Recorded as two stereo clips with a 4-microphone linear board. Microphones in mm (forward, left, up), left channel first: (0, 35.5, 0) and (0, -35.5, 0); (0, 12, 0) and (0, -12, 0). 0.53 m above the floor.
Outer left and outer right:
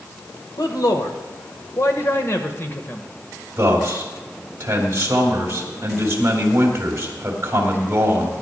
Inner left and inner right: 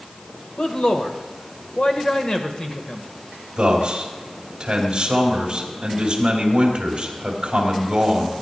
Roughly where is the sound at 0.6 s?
Left.